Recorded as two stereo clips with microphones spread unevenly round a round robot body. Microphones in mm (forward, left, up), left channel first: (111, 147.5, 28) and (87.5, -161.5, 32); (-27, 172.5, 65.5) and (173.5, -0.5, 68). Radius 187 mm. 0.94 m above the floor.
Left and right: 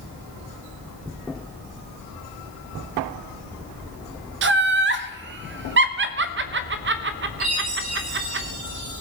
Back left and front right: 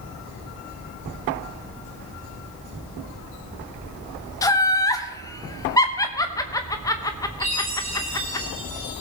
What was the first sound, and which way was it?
Laughter, 145° right.